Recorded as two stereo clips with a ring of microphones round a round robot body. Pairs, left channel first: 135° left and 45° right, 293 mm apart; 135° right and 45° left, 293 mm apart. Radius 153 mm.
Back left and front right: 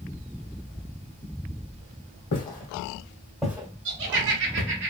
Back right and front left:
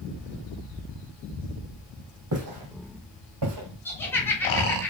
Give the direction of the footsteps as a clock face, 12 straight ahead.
9 o'clock.